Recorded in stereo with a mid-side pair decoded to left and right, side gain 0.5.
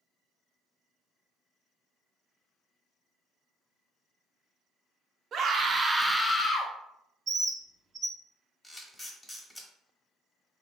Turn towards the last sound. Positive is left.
turn(degrees=15)